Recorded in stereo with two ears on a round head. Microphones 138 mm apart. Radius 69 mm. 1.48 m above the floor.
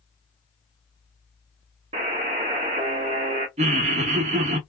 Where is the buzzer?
40° right (ahead or behind), 0.8 m.